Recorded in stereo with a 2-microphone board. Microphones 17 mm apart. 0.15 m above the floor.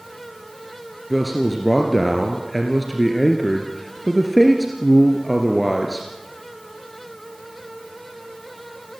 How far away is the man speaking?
About 2.5 m.